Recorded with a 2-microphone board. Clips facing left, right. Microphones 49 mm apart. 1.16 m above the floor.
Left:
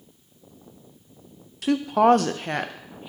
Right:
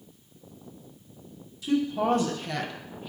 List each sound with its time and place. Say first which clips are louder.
1.6 s a woman speaking: left 7 dB; 70° left (ahead or behind), 0.6 m; by 3.1 s 20° left (ahead or behind), 0.8 m